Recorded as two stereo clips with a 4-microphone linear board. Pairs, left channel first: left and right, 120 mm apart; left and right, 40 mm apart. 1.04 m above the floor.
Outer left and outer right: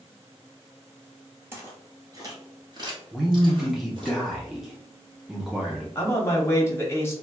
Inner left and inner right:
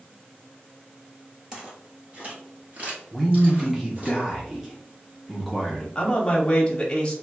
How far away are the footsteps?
About 1.2 m.